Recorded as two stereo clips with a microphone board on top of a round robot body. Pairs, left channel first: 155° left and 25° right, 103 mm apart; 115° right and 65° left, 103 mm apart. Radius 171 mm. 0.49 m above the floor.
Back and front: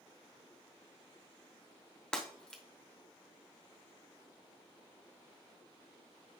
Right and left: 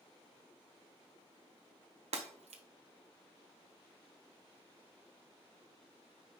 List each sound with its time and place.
2.1 s breaking glass: 75° left, 1.0 m